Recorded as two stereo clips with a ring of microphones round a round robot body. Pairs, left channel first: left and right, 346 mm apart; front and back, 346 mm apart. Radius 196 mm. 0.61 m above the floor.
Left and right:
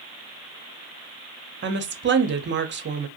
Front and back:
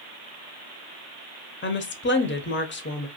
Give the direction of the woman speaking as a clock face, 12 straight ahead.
1 o'clock.